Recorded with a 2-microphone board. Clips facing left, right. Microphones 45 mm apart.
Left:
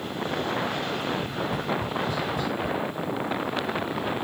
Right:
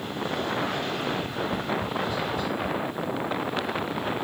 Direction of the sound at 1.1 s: 65° left (ahead or behind).